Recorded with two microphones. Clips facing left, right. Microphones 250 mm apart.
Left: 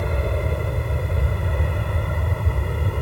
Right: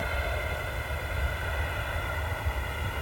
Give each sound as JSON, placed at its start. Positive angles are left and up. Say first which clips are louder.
{"t": 0.0, "sound": "an aircraft", "louder": "left 9 dB", "side_deg": 60}